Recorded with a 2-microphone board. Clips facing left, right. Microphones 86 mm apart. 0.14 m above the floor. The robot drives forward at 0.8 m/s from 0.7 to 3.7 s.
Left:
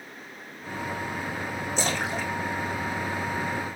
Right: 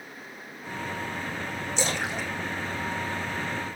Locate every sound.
1.8 s a splash: 45° left (ahead or behind), 7 m